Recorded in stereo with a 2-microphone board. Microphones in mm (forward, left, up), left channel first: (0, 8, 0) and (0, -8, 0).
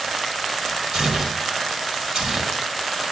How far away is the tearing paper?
About 3.5 m.